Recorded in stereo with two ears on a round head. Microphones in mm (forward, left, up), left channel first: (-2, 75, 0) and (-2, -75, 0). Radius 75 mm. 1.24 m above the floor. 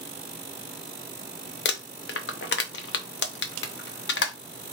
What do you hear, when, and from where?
1.6 s crumpling: 70° left (ahead or behind), 0.7 m